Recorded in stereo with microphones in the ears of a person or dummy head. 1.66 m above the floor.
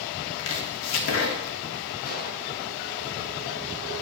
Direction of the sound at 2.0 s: 50° left (ahead or behind).